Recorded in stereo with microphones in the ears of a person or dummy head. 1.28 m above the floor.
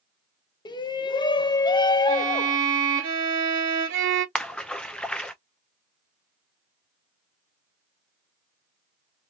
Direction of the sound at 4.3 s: 5° left (ahead or behind).